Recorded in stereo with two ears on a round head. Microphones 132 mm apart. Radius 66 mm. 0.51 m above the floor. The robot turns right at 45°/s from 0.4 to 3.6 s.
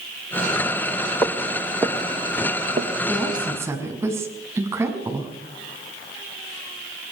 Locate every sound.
1.2 s footsteps: 15° left (ahead or behind), 2.5 m; by 2.9 s 40° right (ahead or behind), 3.5 m
3.1 s a woman speaking: 5° left (ahead or behind), 5.5 m; by 5.3 s 15° right (ahead or behind), 5.5 m